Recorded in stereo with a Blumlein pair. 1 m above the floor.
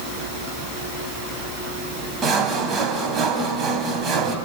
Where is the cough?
No cough in this recording.